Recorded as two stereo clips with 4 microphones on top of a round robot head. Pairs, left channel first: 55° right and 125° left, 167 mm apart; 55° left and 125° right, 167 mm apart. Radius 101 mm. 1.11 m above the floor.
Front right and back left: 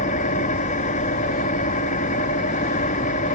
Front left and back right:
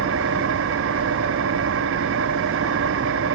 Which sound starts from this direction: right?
An engine running, at 0.0 s.